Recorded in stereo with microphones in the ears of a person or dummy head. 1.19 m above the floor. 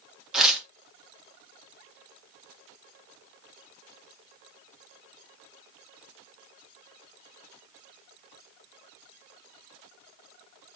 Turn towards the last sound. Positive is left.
turn(degrees=-5)  # may be behind; listen again after turning